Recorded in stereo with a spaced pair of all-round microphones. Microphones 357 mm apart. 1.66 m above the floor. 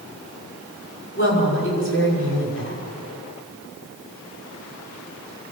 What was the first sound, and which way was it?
A woman speaking, 35° left (ahead or behind).